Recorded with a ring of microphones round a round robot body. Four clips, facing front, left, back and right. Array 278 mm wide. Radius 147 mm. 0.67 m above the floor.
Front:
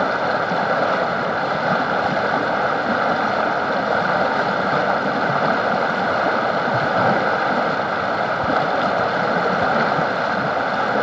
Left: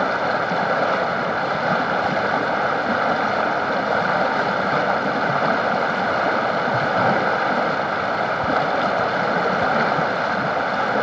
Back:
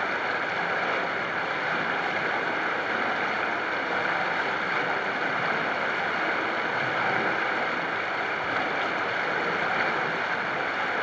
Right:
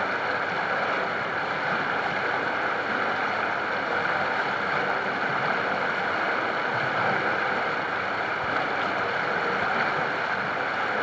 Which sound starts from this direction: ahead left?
Running water, at 0.0 s.